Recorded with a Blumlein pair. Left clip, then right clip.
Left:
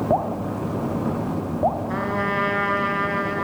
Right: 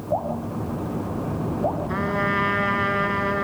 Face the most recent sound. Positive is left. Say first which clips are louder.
# even
turn(degrees=0)